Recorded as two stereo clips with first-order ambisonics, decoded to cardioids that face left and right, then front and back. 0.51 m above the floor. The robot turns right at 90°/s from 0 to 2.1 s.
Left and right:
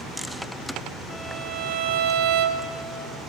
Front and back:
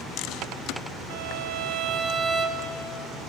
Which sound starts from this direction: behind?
A violin, at 1.1 s.